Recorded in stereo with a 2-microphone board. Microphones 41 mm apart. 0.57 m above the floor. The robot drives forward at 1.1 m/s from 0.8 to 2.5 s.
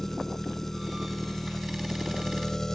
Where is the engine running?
5° left (ahead or behind); by 2.8 s 10° left (ahead or behind).